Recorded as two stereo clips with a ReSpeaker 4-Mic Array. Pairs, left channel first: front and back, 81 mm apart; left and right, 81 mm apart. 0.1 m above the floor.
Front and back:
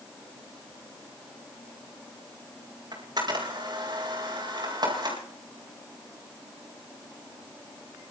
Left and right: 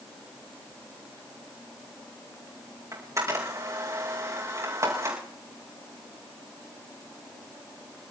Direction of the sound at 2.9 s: 140° right.